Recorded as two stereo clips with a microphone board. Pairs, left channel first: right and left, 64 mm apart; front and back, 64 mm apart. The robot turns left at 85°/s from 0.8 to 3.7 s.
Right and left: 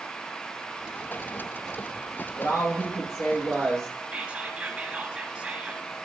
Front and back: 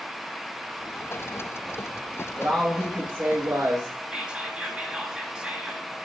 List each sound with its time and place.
2.4 s a woman speaking: 60° right, 2.5 m; by 4.0 s 170° right, 2.5 m
4.1 s whispering: 130° left, 1.6 m